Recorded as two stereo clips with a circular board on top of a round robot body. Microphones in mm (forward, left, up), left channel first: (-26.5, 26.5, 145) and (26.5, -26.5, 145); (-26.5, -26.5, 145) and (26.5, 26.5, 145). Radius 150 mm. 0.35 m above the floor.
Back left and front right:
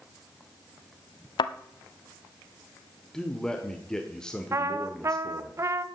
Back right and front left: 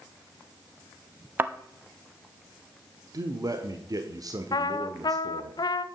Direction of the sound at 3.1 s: 55° left.